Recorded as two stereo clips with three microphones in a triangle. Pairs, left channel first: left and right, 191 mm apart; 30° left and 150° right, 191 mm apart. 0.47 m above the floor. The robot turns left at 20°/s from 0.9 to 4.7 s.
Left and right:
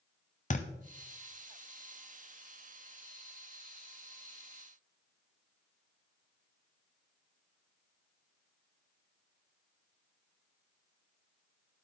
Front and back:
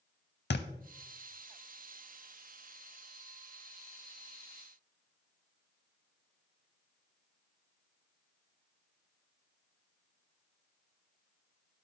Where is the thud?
45° left, 0.6 m.